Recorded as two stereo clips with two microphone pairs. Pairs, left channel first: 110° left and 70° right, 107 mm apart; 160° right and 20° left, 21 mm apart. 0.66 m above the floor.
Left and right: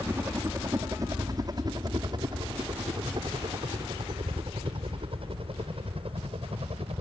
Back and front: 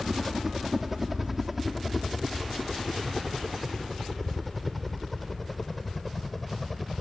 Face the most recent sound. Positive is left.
turn(degrees=-80)